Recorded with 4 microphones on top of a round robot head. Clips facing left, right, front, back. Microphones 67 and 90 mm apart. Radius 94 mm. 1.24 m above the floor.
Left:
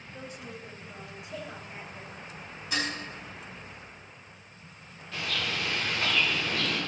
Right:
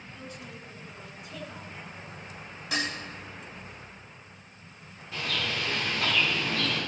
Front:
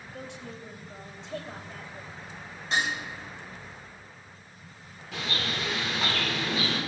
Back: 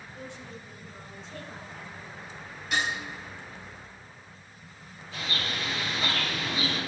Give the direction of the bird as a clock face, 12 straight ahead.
12 o'clock.